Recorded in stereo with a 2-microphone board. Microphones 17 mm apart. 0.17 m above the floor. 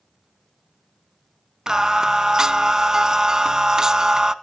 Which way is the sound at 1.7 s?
35° right (ahead or behind).